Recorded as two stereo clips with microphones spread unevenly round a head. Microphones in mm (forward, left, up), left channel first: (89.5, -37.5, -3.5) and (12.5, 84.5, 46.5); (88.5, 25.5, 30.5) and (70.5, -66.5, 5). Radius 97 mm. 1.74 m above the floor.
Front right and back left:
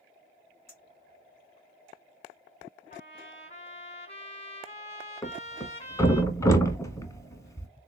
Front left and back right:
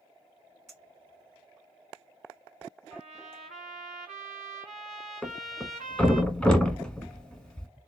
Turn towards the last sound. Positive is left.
turn(degrees=30)